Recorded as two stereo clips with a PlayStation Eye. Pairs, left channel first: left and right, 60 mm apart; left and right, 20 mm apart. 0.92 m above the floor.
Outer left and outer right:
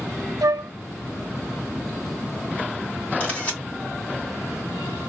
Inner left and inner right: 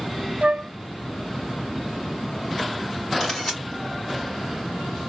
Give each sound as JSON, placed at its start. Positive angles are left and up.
{"t": 0.4, "sound": "a flute", "side_deg": -70, "distance_m": 0.5}
{"t": 3.2, "sound": "a camera shutter", "side_deg": 25, "distance_m": 2.0}